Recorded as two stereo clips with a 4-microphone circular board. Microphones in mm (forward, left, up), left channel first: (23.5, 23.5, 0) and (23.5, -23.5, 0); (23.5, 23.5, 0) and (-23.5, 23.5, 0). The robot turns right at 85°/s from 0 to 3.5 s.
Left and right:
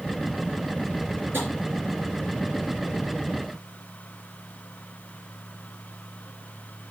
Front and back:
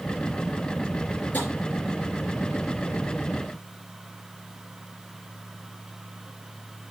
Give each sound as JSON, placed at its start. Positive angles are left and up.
{"t": 1.3, "sound": "tapping", "azimuth_deg": -55, "distance_m": 4.5}